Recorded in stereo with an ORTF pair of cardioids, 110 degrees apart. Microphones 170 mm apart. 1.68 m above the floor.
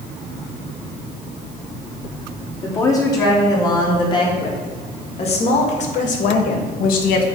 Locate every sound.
2.6 s a woman speaking: 20° left, 3 m; by 7.3 s 75° left, 1.6 m